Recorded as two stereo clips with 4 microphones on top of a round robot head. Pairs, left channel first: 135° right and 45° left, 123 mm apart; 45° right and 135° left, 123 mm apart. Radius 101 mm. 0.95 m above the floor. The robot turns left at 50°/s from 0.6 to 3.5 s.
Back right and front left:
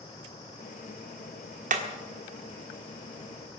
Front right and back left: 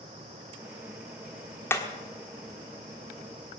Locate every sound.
1.7 s hammering: 25° left, 1.4 m; by 1.9 s 20° left, 1.4 m